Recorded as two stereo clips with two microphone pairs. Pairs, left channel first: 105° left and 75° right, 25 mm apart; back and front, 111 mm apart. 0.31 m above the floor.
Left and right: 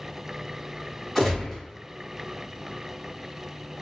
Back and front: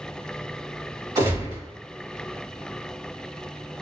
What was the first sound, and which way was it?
A gunshot, 25° left.